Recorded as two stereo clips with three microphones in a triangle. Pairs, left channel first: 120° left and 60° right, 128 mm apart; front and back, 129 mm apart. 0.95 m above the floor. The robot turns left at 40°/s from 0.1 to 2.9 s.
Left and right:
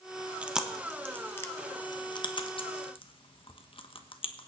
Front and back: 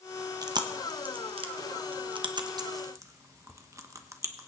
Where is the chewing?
135° right, 1.1 m; by 4.5 s 125° left, 1.1 m.